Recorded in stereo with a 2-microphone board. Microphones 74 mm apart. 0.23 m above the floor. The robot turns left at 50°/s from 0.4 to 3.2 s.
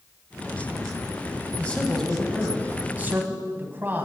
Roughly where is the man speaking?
Ahead left.